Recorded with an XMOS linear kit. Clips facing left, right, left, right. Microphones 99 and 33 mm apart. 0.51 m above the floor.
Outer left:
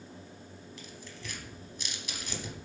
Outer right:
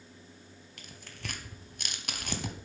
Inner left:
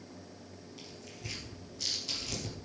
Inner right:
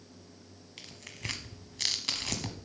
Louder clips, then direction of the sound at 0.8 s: Outer right 2 dB, inner right 6 dB; 60° right (ahead or behind).